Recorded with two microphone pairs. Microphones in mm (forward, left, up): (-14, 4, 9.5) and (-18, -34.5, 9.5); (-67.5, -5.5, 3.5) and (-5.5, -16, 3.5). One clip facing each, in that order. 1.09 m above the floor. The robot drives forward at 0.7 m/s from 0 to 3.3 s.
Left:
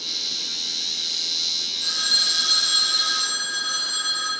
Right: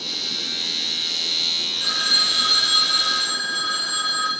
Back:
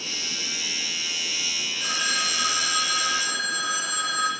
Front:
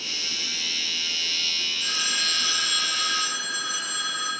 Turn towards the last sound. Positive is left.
turn(degrees=-155)